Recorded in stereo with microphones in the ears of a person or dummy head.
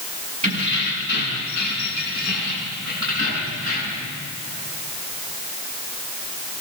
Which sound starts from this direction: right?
Keys jangling, at 0.4 s.